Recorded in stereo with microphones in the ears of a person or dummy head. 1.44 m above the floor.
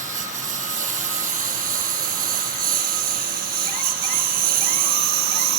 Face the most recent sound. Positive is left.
turn(degrees=-50)  # may be behind; listen again after turning